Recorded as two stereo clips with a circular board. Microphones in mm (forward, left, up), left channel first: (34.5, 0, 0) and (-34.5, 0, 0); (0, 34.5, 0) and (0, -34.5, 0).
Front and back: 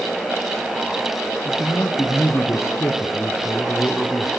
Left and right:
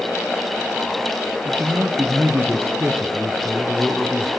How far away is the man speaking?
About 2 m.